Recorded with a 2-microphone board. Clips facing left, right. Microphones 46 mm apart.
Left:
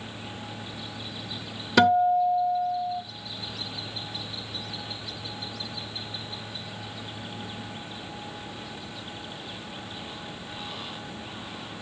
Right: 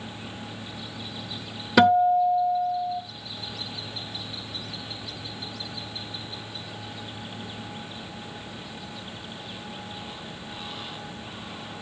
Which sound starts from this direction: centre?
A guitar, at 1.8 s.